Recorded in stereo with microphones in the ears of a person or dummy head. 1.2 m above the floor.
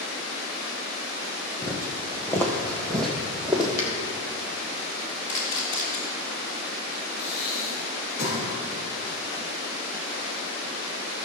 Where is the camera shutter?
35° left (ahead or behind), 2.5 m.